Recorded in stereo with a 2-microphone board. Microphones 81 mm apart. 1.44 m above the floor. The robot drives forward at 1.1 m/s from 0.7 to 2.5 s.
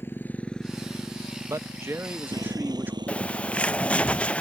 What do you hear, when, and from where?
0.0 s a motorcycle: 25° left (ahead or behind); by 4.4 s 75° right (ahead or behind)
1.4 s a man speaking: 40° right (ahead or behind); by 3.0 s 25° right (ahead or behind)
3.1 s a bird: 15° left (ahead or behind)